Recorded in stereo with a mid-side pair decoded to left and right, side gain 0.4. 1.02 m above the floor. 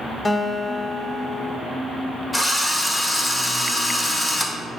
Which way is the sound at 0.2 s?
20° left.